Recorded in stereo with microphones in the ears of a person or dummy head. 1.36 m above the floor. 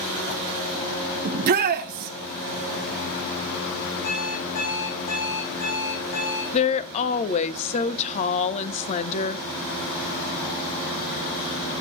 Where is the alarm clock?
60° left (ahead or behind), 5.5 m.